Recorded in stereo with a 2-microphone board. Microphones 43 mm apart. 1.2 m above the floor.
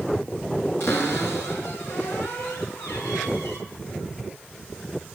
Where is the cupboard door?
80° left, 4.5 m.